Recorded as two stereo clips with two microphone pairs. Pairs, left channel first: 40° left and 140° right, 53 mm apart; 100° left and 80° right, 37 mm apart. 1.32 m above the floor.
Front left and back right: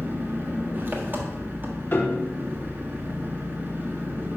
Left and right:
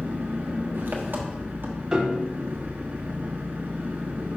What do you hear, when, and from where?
0.0 s an engine running: 95° right, 1.3 m
1.9 s a piano: 10° right, 1.1 m